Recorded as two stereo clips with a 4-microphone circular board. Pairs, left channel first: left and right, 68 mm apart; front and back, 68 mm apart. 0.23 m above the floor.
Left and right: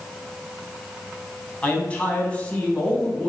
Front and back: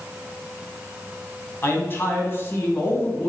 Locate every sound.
1.6 s a man speaking: 30° left, 1.9 m